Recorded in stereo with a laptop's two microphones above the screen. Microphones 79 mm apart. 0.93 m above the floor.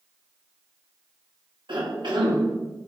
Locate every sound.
1.7 s a cough: 75° right (ahead or behind), 1.8 m